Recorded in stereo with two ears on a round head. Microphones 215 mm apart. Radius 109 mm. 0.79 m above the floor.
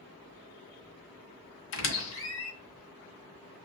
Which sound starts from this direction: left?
A squeak, at 1.7 s.